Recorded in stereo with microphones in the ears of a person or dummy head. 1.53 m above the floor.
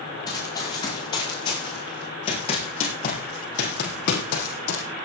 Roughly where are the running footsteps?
Left.